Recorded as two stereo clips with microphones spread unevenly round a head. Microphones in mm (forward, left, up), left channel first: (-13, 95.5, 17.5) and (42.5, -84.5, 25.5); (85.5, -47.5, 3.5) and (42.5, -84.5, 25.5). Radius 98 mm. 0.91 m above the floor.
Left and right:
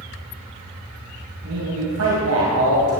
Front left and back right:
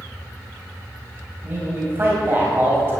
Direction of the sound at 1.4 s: 85° right.